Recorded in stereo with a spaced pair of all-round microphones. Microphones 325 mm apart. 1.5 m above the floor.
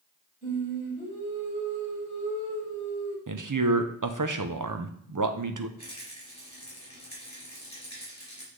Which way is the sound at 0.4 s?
25° left (ahead or behind).